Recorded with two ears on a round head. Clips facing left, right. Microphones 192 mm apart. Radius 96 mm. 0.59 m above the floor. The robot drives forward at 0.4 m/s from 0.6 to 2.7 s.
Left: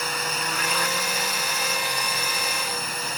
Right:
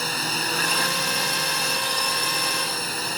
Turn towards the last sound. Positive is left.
turn(degrees=-30)  # may be behind; listen again after turning